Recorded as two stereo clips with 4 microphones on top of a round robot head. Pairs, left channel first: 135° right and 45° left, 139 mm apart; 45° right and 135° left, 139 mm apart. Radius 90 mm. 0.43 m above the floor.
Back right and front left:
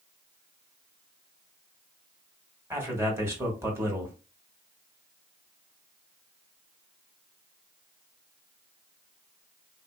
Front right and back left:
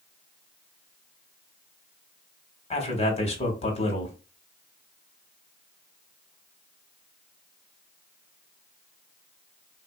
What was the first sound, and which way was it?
A man speaking, 25° right.